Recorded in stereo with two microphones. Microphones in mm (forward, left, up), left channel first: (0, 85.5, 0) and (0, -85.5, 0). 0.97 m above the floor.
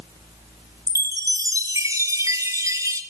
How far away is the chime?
About 2 m.